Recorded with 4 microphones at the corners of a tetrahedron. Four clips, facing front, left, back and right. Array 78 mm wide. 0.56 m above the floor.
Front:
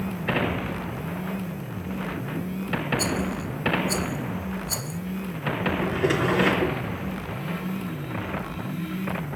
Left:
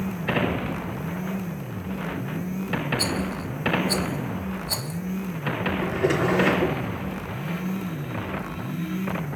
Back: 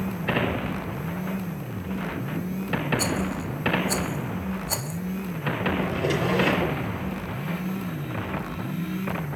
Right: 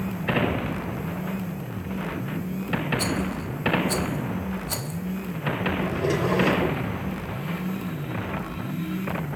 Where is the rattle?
165° left, 0.8 m.